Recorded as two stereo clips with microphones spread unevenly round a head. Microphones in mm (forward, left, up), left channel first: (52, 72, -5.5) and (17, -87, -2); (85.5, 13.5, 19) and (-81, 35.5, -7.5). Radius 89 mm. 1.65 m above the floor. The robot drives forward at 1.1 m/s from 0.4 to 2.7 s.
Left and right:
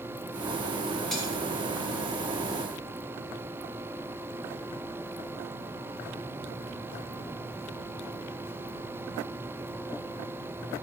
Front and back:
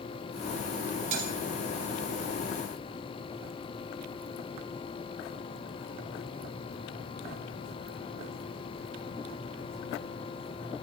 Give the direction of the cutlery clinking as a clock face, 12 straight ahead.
6 o'clock.